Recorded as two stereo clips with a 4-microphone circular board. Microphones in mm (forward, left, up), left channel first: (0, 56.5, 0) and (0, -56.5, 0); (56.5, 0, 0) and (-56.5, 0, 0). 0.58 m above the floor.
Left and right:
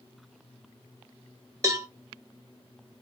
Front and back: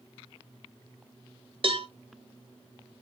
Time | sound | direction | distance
1.6 | a cowbell | 145° right | 0.5 m